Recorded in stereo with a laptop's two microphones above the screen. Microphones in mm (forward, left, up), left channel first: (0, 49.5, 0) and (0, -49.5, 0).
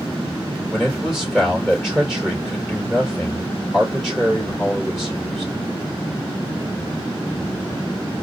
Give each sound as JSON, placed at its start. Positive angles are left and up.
{"t": 0.7, "sound": "a man speaking", "side_deg": 0, "distance_m": 3.5}